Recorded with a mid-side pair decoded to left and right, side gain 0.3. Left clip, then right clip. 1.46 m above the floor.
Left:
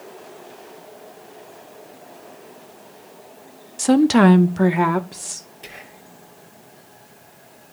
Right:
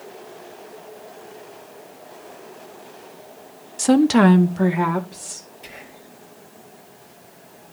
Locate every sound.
3.8 s a woman speaking: 5° right, 0.6 m; by 5.5 s 60° left, 1.4 m
5.6 s whispering: 55° left, 1.7 m